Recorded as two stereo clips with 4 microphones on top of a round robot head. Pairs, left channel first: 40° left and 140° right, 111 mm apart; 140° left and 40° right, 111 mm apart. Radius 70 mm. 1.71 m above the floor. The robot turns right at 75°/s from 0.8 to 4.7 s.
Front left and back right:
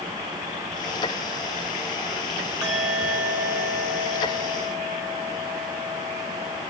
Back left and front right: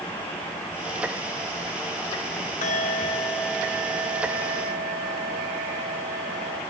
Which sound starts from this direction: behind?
A bell, at 2.6 s.